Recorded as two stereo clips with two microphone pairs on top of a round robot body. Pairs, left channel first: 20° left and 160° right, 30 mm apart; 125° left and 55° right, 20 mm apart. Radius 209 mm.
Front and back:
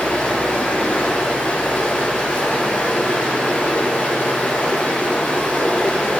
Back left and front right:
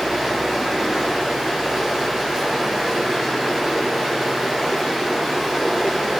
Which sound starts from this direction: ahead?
Running water, at 0.0 s.